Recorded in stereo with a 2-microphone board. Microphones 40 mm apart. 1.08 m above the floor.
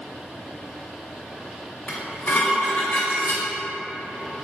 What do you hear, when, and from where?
1.9 s dishes clattering: 45° left (ahead or behind), 1.0 m